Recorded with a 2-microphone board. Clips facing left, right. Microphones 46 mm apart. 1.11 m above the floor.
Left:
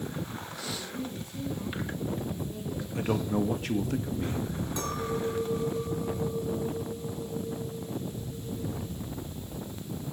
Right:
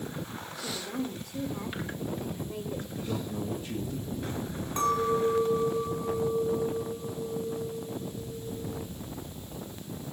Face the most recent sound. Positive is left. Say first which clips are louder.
# right 8 dB
turn(degrees=-30)  # may be behind; listen again after turning